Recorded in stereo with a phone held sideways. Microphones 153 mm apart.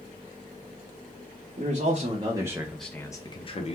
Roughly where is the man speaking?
Right.